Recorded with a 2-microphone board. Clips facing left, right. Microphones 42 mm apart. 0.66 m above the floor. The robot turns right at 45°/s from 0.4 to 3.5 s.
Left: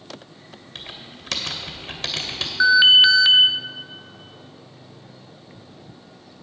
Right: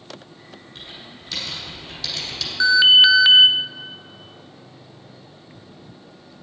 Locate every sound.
0.8 s typing on a keyboard: 70° left (ahead or behind), 2.0 m; by 2.5 s 30° left (ahead or behind), 2.0 m
2.6 s an alarm: 160° left, 0.7 m; by 3.5 s 160° right, 0.7 m